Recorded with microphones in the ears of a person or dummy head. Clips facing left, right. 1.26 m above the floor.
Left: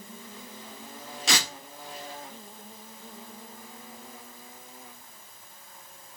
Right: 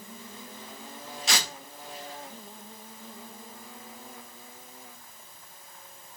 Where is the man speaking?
I don't hear a man speaking.